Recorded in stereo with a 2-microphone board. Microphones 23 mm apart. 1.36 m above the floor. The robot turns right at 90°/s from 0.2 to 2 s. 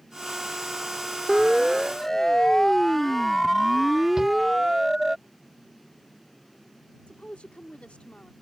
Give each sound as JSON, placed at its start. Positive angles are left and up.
{"t": 1.3, "sound": "a siren", "side_deg": -40}
{"t": 4.2, "sound": "a shout", "side_deg": -20}
{"t": 7.1, "sound": "a woman speaking", "side_deg": 75}